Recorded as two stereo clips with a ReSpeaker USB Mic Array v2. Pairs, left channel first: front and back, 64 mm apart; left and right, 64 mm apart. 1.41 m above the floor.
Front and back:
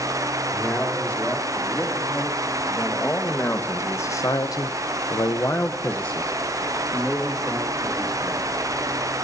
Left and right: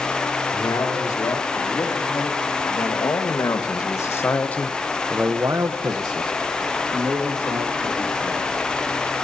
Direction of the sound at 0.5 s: 70° left.